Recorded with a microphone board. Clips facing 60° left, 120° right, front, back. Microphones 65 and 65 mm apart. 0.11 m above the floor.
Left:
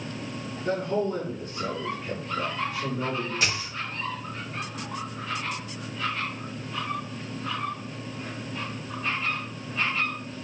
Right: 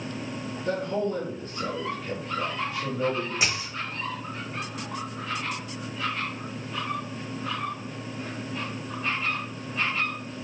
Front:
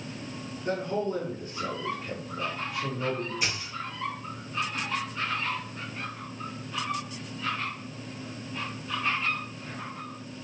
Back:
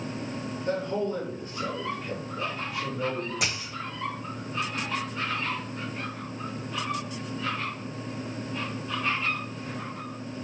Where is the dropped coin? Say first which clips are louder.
Even, back 1 dB; 165° left, 1.5 m.